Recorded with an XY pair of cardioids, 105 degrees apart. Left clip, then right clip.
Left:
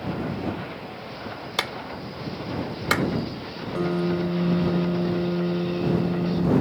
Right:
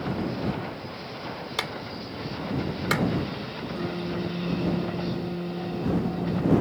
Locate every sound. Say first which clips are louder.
1.6 s a clap: left 4 dB; 25° left
3.8 s a piano: left 8 dB; 55° left